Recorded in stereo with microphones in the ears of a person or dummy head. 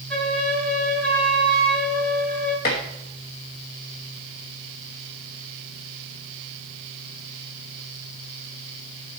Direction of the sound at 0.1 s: 5° left (ahead or behind).